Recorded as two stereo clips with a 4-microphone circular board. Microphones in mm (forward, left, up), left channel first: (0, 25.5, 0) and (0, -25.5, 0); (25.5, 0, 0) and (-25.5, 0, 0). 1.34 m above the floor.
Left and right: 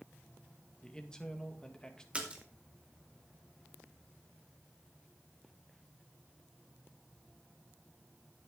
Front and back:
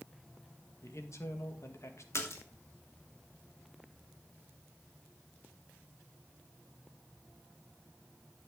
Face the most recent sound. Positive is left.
turn(degrees=-25)